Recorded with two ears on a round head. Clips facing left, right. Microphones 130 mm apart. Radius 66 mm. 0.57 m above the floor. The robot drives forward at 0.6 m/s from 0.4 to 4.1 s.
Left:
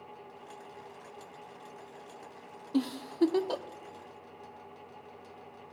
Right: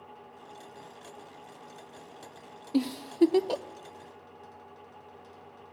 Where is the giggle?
15° right (ahead or behind), 0.7 m; by 3.6 s 20° right (ahead or behind), 0.6 m.